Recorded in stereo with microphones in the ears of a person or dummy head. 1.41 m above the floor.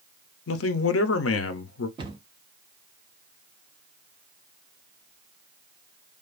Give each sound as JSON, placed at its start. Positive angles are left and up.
{"t": 0.5, "sound": "a man speaking", "side_deg": 70, "distance_m": 0.6}
{"t": 2.0, "sound": "a cupboard door", "side_deg": -25, "distance_m": 0.7}